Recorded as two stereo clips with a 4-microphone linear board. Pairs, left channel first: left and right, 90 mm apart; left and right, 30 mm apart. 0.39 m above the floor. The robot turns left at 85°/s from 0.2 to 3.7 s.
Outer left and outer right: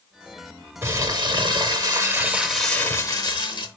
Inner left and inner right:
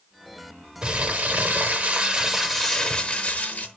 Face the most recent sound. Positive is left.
turn(degrees=80)